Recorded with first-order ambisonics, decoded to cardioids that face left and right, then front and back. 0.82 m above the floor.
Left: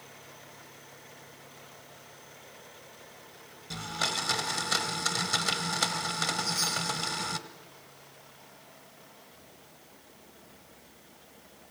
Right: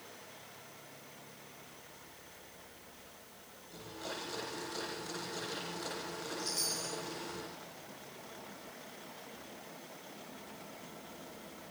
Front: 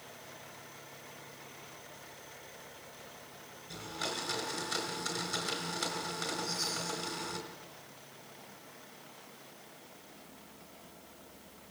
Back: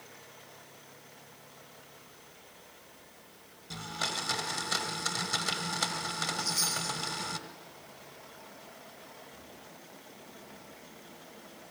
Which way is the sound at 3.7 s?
115° left.